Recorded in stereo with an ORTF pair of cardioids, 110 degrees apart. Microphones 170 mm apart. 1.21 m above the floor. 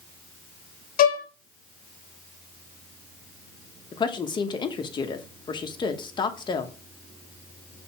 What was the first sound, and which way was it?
A violin, 60° left.